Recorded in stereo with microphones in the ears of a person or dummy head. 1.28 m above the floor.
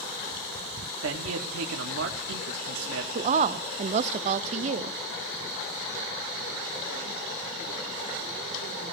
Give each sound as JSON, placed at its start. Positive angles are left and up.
{"t": 1.0, "sound": "a man speaking", "side_deg": -80, "distance_m": 1.4}
{"t": 3.1, "sound": "a woman speaking", "side_deg": -40, "distance_m": 0.5}